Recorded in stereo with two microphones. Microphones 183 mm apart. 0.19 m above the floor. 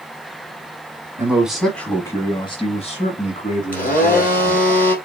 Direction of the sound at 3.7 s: 45° left (ahead or behind).